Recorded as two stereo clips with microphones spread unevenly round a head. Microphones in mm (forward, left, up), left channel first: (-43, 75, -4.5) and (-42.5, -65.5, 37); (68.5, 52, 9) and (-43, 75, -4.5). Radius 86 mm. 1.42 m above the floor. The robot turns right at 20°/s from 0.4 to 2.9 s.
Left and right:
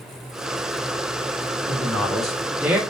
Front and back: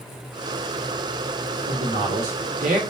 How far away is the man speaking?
About 0.8 m.